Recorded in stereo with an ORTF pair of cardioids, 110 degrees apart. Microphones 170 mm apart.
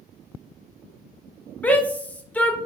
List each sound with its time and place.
1.6 s a shout: 10° left, 1.0 m